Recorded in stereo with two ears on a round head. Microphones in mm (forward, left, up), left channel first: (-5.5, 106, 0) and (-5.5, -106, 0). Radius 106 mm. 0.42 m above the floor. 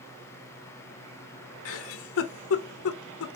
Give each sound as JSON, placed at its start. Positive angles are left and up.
{"t": 1.6, "sound": "a giggle", "side_deg": 60, "distance_m": 0.6}